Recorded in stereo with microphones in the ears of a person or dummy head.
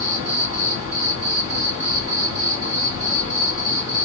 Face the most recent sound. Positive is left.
turn(degrees=-25)  # may be behind; listen again after turning